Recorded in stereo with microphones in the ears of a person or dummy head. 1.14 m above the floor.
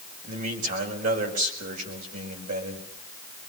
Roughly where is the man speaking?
Right.